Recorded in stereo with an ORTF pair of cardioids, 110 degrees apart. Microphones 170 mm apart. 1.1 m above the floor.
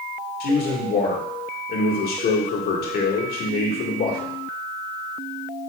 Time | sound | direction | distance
0.4 | a man speaking | 65° left | 1.3 m